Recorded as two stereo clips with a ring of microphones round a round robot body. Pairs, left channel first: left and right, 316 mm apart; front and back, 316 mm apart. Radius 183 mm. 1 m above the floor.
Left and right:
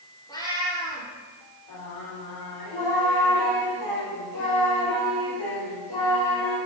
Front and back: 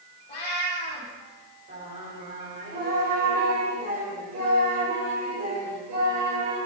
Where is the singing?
110° left, 4 m.